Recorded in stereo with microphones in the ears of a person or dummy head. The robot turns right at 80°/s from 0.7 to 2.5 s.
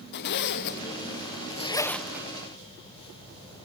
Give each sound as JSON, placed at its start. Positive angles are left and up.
{"t": 0.1, "sound": "a zipper", "side_deg": 60, "distance_m": 0.7}